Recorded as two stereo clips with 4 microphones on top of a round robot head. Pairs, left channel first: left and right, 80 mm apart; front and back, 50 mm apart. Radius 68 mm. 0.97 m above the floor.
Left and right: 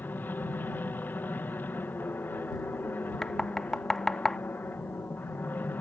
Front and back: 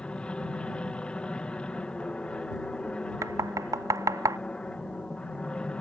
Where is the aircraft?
45° left.